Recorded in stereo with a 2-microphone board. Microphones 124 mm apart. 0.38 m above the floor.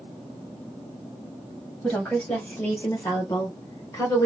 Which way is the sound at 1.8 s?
15° left (ahead or behind).